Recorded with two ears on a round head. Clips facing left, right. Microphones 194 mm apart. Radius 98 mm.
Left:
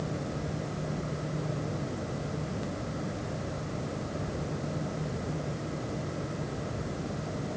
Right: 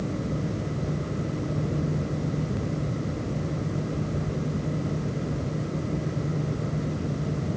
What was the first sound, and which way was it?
Only background noise.